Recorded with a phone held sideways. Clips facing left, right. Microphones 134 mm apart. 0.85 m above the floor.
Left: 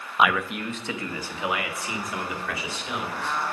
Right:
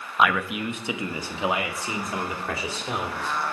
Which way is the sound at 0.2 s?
10° left (ahead or behind).